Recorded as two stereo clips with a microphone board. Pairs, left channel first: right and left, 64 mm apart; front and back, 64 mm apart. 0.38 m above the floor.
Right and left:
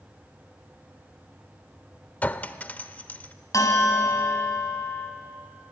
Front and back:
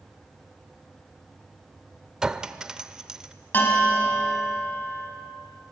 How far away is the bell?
About 2.5 m.